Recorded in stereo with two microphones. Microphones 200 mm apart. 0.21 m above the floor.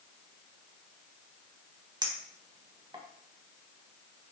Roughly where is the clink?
Right.